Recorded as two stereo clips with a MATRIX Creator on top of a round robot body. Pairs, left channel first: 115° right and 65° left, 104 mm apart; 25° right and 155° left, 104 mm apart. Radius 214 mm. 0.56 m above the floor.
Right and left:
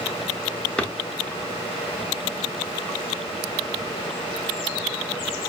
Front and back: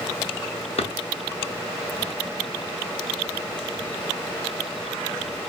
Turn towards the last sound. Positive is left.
turn(degrees=-35)